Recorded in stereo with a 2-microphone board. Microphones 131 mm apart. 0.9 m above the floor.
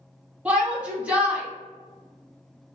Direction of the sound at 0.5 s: 10° right (ahead or behind).